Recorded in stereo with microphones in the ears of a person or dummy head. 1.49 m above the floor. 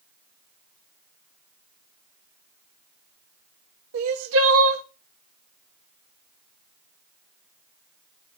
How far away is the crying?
About 1.5 m.